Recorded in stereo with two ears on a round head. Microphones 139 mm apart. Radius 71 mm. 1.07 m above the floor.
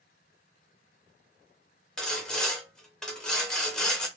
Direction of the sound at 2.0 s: 5° left (ahead or behind).